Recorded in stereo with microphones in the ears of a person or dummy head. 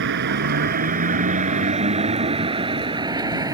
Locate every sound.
0.0 s a vehicle: 55° right (ahead or behind); by 3.5 s 20° right (ahead or behind)